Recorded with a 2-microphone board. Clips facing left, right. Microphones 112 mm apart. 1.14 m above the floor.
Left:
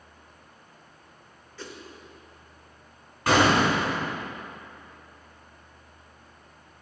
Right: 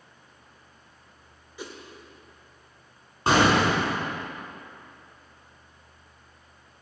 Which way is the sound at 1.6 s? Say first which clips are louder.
Right 2 dB; 15° right (ahead or behind).